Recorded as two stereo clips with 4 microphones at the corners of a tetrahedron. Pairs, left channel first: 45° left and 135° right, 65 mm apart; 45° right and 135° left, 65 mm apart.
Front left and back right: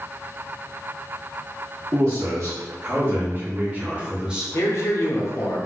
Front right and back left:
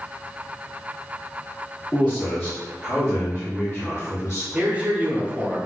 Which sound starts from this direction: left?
A man speaking, at 4.5 s.